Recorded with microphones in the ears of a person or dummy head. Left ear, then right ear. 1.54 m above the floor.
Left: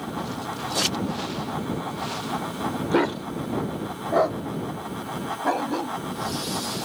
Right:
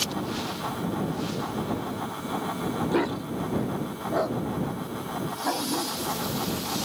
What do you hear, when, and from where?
2.9 s a dog barking: 15° left (ahead or behind); by 6.9 s 20° left (ahead or behind)